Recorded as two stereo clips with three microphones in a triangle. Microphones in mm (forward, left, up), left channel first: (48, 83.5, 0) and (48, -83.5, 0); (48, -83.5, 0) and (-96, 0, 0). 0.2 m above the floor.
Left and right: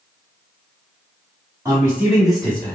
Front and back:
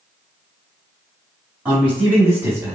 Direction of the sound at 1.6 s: 140° right.